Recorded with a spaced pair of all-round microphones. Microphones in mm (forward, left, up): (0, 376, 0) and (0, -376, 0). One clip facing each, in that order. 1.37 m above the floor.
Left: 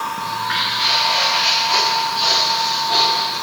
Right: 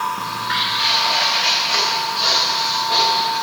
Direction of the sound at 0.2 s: 10° left (ahead or behind).